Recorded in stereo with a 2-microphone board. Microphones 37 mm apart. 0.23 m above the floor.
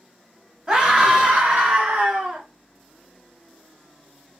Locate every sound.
0.7 s a scream: 25° right (ahead or behind), 1.0 m; by 2.4 s 55° right (ahead or behind), 1.6 m